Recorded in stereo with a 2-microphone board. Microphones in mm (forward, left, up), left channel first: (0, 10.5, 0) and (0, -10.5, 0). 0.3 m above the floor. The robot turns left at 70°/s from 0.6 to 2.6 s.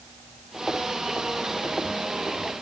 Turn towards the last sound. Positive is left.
No sound to turn to.